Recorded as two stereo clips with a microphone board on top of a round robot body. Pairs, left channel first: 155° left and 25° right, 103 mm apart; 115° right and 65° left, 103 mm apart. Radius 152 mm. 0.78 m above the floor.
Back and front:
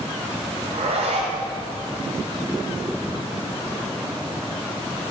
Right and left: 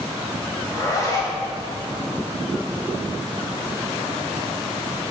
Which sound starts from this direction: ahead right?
A zipper, at 0.6 s.